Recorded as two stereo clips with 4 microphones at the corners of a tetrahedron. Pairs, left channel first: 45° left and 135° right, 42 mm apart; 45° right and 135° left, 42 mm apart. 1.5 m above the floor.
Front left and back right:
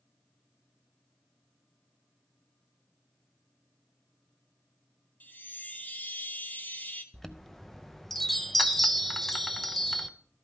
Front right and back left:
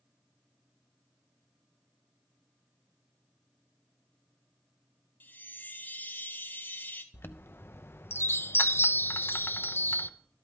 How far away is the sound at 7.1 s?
About 0.6 m.